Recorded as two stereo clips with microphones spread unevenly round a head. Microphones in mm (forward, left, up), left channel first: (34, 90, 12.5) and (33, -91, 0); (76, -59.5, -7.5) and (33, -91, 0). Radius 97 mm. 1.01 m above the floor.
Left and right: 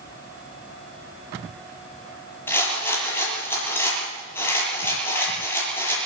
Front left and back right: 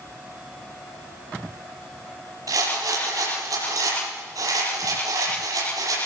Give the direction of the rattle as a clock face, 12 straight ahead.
6 o'clock.